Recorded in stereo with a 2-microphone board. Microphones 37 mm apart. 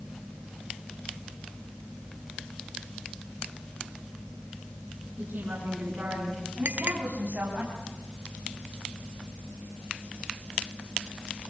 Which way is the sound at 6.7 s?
50° right (ahead or behind).